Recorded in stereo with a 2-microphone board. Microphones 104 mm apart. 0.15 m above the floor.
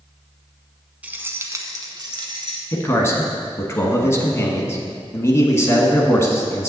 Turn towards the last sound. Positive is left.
turn(degrees=25)  # may be behind; listen again after turning